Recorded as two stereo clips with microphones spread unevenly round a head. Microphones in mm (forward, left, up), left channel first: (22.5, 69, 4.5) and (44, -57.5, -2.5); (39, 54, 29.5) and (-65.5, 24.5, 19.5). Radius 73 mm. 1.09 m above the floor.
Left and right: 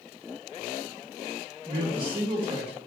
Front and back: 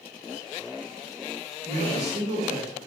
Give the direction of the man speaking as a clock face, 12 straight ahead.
5 o'clock.